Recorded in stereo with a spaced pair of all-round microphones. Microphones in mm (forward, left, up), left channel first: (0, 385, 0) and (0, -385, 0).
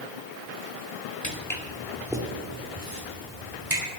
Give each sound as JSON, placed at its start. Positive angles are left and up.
{"t": 1.2, "sound": "footsteps", "side_deg": 20, "distance_m": 2.0}